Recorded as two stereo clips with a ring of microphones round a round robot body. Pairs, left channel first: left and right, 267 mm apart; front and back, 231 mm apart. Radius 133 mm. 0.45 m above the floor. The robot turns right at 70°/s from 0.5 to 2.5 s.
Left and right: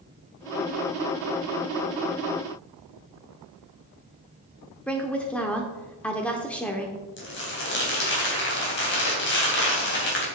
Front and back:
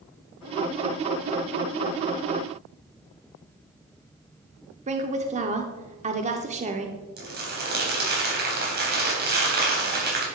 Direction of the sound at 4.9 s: 170° left.